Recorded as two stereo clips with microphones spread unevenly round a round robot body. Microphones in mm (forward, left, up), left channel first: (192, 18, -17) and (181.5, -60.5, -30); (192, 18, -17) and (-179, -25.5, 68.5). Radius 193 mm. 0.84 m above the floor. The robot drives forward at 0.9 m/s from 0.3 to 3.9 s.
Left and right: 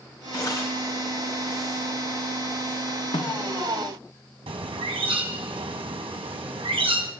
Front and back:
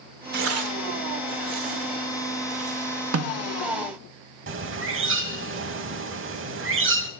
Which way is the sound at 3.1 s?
125° left.